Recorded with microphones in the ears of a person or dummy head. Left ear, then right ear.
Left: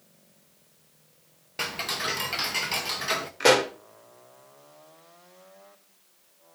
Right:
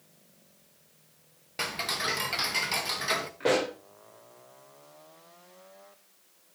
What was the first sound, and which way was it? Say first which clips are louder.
Ticking: left 1 dB; 5° left (ahead or behind).